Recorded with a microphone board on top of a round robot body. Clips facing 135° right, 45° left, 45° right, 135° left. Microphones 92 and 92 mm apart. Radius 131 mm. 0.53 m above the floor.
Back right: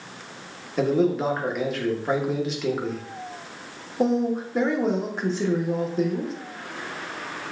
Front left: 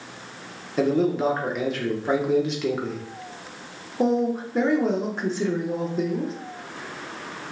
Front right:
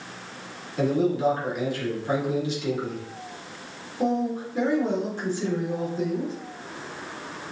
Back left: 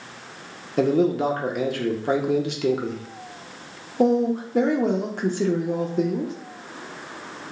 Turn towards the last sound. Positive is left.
turn(degrees=135)